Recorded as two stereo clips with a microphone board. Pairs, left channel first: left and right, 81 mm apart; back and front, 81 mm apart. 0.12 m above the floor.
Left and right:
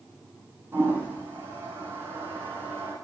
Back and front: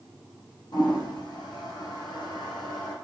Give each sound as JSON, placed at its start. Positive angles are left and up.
{"t": 0.7, "sound": "a toilet flushing", "azimuth_deg": -150, "distance_m": 3.0}